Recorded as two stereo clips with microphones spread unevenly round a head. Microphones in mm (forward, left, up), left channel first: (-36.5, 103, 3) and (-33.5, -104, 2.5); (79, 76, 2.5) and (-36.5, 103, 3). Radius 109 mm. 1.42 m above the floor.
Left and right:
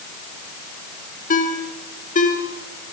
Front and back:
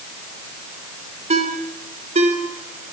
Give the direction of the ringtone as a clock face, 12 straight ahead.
7 o'clock.